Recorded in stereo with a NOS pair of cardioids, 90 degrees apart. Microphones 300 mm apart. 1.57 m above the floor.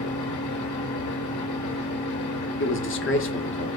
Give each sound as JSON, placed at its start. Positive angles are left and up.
{"t": 0.0, "sound": "a fan", "azimuth_deg": 70, "distance_m": 3.0}
{"t": 2.6, "sound": "a man speaking", "azimuth_deg": 40, "distance_m": 1.0}